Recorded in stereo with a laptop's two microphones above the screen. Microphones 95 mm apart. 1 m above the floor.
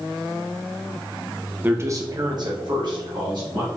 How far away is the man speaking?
About 0.6 m.